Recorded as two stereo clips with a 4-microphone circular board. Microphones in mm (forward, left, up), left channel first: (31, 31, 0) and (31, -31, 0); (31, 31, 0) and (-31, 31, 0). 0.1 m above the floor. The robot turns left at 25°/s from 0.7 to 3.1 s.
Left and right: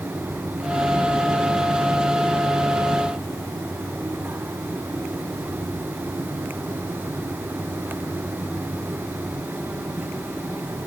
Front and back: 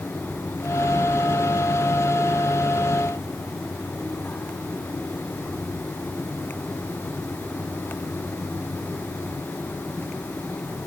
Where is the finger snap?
No finger snap in this recording.